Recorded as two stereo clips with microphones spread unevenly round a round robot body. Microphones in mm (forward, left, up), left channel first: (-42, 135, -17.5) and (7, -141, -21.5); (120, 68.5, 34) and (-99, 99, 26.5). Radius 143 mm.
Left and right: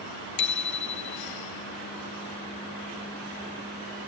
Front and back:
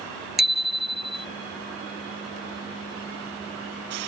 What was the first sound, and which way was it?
A bicycle bell, 85° left.